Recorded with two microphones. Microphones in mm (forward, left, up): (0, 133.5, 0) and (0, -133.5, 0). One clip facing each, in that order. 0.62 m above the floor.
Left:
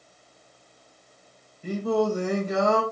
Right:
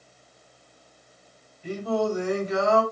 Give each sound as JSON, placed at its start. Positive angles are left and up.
{"t": 1.6, "sound": "singing", "side_deg": 50, "distance_m": 4.5}